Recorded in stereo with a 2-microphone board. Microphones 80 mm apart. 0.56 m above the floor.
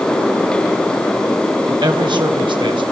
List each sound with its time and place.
1.6 s a man speaking: 60° right (ahead or behind), 3 m; by 2.8 s 75° right (ahead or behind), 3 m